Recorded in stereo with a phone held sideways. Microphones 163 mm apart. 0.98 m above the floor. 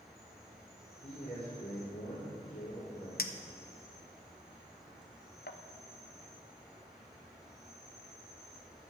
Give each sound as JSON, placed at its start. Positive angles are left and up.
{"t": 0.0, "sound": "an insect", "side_deg": -5, "distance_m": 3.0}
{"t": 1.0, "sound": "a man speaking", "side_deg": 80, "distance_m": 3.0}
{"t": 3.2, "sound": "a clink", "side_deg": 70, "distance_m": 0.6}